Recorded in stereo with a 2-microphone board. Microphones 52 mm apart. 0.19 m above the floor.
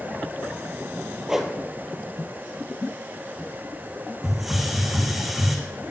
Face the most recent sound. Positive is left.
turn(degrees=-5)  # may be behind; listen again after turning